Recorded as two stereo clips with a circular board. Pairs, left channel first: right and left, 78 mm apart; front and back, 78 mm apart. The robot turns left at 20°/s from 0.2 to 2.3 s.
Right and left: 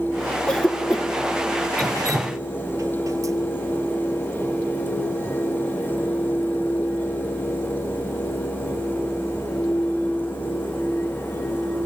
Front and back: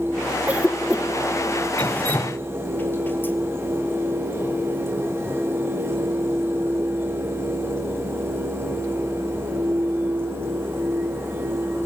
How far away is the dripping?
About 1.0 m.